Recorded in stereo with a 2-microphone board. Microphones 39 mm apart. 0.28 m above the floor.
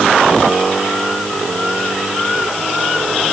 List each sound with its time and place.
Only background noise.